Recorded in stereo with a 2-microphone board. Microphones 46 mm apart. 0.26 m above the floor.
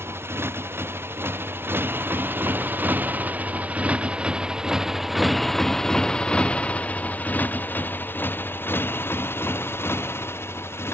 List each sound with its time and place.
0.0 s a motorcycle: 70° right (ahead or behind); by 10.9 s 65° left (ahead or behind)